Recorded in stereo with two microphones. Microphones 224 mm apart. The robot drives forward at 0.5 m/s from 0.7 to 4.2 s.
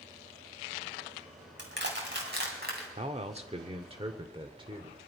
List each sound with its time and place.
1.6 s crushing: 55° right (ahead or behind), 3 m; by 2.9 s 50° right (ahead or behind), 3 m
3.0 s a man speaking: 30° right (ahead or behind), 0.8 m; by 5.0 s 20° right (ahead or behind), 1.1 m